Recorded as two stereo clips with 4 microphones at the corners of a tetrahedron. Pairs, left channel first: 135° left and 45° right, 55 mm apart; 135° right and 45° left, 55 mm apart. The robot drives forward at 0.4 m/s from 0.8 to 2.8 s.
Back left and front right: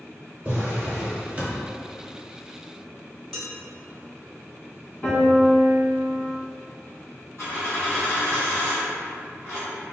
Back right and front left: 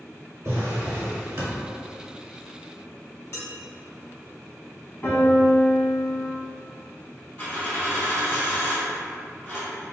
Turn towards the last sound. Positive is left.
turn(degrees=160)